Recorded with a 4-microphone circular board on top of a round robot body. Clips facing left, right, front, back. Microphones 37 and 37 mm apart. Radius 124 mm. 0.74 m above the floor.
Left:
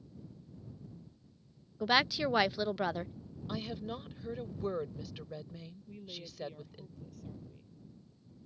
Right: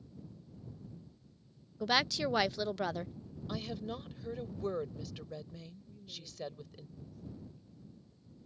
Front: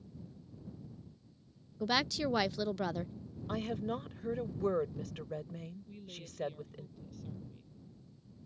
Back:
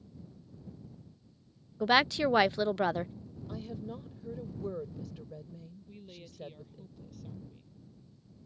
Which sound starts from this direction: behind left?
A woman speaking, at 1.8 s.